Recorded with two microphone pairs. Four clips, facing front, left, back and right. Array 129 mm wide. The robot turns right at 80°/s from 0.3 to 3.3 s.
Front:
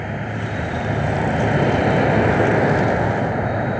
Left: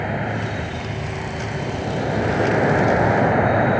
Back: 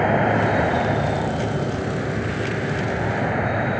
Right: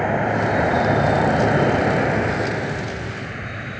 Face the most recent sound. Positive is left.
turn(degrees=85)